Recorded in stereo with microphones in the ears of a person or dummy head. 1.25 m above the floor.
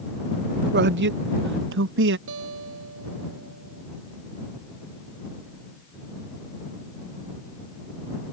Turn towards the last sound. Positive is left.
turn(degrees=-75)  # may be behind; listen again after turning